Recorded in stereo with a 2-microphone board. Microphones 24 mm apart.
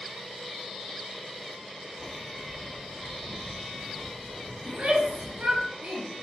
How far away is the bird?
About 0.8 m.